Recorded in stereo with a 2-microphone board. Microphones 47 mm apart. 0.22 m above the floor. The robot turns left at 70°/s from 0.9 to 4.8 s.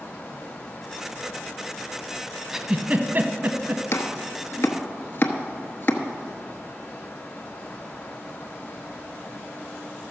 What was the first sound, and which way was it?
A giggle, 10° right (ahead or behind).